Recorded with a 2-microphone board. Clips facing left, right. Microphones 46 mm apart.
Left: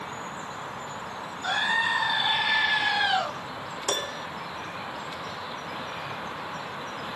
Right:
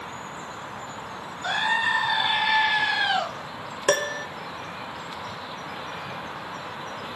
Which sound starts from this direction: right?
A piano, at 3.9 s.